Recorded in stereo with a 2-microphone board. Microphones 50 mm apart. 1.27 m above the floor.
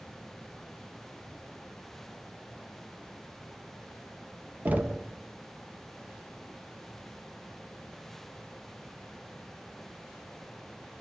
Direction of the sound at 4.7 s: 35° right (ahead or behind).